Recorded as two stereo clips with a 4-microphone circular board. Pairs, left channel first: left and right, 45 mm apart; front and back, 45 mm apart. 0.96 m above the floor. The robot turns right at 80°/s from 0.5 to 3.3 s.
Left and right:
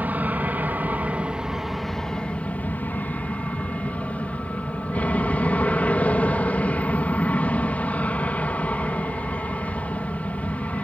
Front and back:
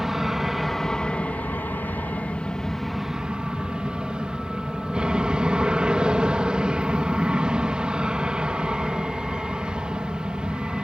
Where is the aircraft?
105° right; by 10.8 s 120° left.